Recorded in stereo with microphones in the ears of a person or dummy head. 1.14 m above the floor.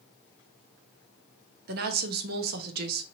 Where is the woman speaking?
50° right (ahead or behind), 0.7 m.